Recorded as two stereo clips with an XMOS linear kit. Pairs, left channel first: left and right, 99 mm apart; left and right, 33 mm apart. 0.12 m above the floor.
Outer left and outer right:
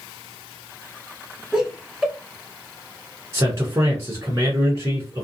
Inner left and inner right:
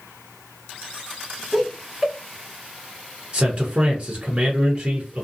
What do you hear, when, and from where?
1.5 s laughter: 5° right (ahead or behind), 1.1 m
3.3 s a man speaking: 30° right (ahead or behind), 1.2 m